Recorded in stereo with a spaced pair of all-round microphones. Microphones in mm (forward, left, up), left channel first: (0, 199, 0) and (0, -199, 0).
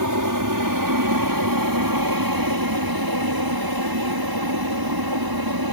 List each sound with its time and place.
0.0 s an aircraft: 50° right (ahead or behind); by 5.7 s 65° right (ahead or behind)